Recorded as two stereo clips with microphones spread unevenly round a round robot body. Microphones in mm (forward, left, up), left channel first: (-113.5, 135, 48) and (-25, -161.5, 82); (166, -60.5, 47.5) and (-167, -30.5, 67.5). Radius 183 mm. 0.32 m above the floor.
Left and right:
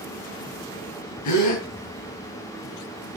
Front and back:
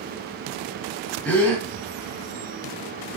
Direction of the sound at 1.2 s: 80° left.